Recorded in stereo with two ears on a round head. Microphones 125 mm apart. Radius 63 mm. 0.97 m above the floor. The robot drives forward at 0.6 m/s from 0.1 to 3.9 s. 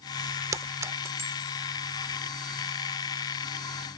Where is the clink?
25° right (ahead or behind); by 1.5 s 20° right (ahead or behind).